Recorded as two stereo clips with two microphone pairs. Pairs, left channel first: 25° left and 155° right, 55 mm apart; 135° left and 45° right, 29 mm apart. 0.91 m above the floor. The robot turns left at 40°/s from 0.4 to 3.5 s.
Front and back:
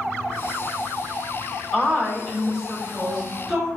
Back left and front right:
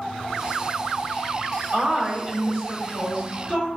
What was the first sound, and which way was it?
A woman speaking, 5° right.